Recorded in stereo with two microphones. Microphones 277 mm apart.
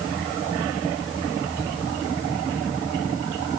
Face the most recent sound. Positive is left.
No sound to turn to.